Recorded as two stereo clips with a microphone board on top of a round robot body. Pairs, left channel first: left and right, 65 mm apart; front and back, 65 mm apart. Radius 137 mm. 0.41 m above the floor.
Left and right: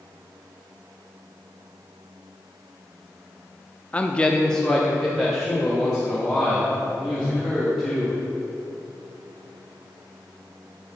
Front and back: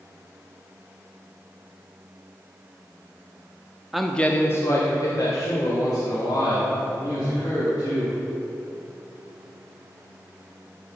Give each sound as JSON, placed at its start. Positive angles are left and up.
{"t": 3.9, "sound": "a man speaking", "azimuth_deg": 105, "distance_m": 1.2}